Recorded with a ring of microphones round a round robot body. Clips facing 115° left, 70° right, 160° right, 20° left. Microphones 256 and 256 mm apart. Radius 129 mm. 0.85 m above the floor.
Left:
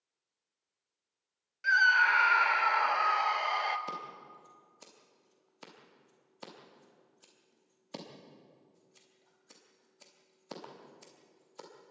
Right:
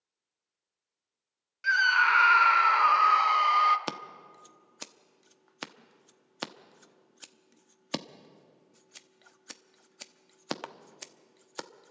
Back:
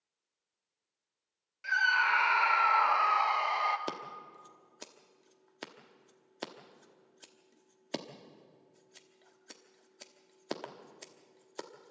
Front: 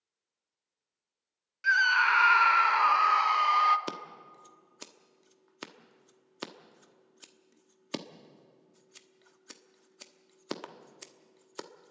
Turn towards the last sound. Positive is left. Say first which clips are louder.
# right 6 dB, front 1 dB
turn(degrees=-55)